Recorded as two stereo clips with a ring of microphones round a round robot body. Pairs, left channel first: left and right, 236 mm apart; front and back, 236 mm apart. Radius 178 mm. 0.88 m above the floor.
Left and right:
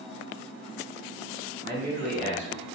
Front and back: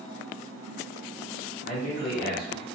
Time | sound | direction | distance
1.6 | a man speaking | 55° right | 1.7 m